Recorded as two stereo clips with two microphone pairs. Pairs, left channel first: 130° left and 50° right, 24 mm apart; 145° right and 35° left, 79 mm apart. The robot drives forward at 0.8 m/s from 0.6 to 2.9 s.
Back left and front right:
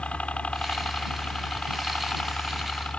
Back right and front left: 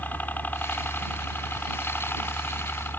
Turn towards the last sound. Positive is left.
turn(degrees=155)